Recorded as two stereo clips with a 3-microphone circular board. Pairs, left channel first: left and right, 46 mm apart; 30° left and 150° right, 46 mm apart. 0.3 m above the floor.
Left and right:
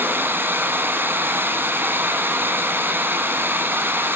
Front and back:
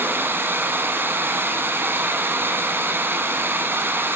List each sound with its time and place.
0.0 s running water: 120° right, 1.4 m